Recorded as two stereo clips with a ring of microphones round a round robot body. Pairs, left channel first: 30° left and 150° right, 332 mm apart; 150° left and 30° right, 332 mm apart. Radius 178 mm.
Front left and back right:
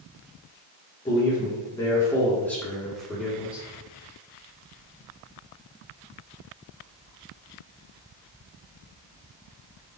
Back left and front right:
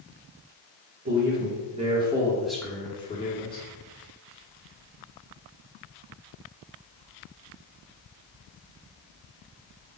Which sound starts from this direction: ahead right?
A man speaking, at 1.1 s.